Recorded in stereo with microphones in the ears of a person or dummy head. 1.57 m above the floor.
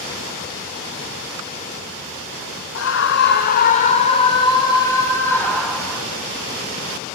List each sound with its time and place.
2.8 s a scream: 70° left (ahead or behind), 2 m; by 6.0 s 5° left (ahead or behind), 4 m